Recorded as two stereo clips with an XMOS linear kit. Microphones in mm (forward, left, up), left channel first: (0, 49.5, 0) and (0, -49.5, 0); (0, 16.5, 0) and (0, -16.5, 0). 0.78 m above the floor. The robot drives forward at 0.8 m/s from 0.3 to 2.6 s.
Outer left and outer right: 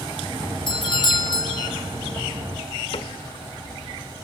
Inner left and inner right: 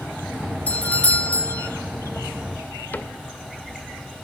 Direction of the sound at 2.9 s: 70° left (ahead or behind).